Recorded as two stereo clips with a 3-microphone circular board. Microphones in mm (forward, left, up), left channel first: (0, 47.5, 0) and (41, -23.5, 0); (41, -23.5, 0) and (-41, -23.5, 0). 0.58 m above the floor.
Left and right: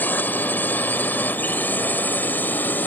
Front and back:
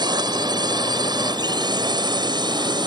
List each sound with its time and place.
0.0 s a drone: 175° right